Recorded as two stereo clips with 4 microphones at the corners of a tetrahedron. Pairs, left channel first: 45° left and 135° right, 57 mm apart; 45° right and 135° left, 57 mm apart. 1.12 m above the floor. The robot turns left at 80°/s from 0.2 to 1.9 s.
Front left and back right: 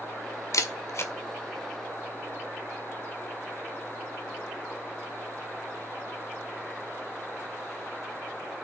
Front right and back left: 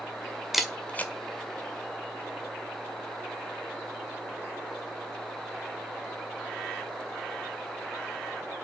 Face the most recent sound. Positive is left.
turn(degrees=-60)